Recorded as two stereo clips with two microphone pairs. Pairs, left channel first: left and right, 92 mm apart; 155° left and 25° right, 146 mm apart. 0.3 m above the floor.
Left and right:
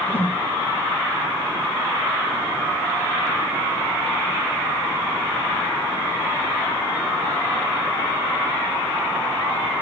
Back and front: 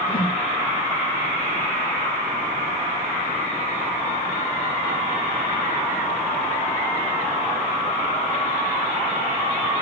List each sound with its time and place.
0.1 s a whoosh: 140° left, 0.6 m